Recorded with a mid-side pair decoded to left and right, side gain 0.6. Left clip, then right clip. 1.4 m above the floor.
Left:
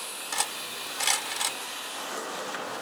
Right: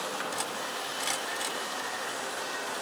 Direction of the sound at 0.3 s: 40° left.